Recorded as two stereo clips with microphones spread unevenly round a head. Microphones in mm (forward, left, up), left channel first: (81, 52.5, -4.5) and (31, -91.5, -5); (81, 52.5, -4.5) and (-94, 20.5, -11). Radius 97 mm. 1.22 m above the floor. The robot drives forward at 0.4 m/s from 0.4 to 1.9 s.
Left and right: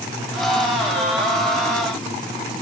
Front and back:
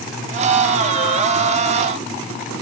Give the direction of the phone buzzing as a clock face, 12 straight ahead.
I don't hear a phone buzzing.